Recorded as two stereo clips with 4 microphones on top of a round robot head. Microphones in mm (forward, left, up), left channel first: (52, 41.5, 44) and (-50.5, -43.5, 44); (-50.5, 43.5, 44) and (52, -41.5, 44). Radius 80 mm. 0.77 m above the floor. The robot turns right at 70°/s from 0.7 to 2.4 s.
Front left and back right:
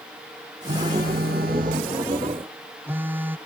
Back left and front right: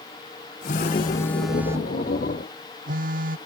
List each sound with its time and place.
0.7 s a phone buzzing: 175° left; by 3.4 s 65° right